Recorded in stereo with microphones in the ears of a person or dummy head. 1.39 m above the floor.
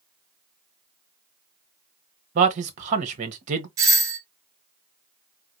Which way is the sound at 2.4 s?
40° right (ahead or behind).